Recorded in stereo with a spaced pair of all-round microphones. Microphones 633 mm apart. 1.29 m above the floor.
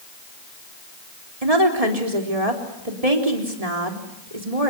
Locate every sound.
1.4 s a woman speaking: 70° right (ahead or behind), 4 m